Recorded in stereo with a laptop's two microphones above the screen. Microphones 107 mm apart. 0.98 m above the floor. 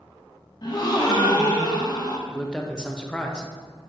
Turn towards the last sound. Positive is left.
turn(degrees=5)  # may be behind; listen again after turning